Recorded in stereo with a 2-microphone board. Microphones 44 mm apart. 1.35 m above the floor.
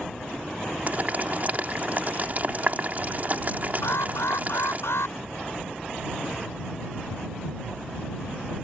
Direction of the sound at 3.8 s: 85° left.